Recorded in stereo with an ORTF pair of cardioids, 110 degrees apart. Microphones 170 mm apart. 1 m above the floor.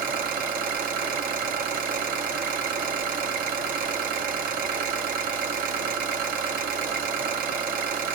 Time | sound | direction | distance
0.0 | an engine running | 60° right | 1.4 m